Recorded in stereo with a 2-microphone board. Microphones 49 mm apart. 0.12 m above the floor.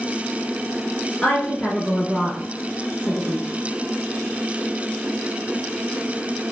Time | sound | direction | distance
1.2 | a woman speaking | 15° left (ahead or behind) | 1.3 m